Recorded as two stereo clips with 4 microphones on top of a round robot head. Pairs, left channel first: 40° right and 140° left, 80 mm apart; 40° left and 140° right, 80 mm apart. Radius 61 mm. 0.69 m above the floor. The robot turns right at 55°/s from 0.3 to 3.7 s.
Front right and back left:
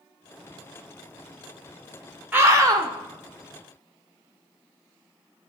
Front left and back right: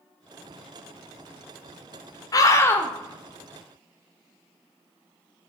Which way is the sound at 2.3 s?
65° left.